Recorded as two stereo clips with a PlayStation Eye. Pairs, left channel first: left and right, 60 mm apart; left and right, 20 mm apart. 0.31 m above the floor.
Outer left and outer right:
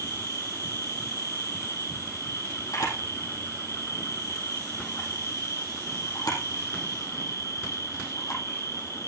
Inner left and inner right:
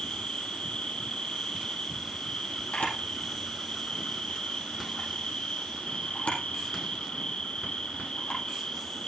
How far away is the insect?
About 2.5 m.